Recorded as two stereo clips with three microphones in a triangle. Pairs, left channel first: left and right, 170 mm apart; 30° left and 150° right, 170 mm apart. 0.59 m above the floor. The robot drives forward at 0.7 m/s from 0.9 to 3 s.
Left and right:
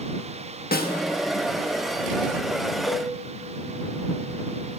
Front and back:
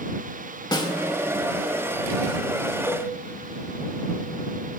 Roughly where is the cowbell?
Left.